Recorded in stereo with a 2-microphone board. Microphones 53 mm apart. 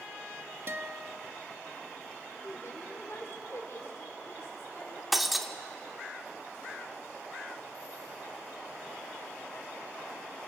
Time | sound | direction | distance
0.7 | a guitar | 50° right (ahead or behind) | 0.9 m
2.4 | a woman speaking | 60° left (ahead or behind) | 2.5 m
5.1 | breaking glass | centre (ahead or behind) | 1.0 m